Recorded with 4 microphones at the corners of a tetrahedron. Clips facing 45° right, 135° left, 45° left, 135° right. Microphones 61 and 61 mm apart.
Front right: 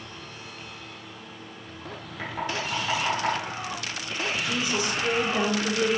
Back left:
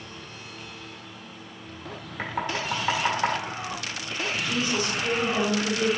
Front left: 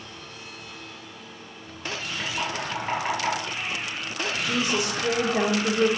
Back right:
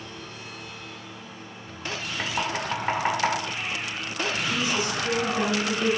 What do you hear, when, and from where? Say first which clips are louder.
2.2 s knocking: back left 1 dB, back right 2 dB; 170° right, 1.9 m
4.4 s a woman speaking: back left 2 dB, front left 3 dB; 25° left, 1.3 m